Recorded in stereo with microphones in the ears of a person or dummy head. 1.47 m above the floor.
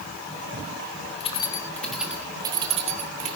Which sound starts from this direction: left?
Keys jangling, at 1.2 s.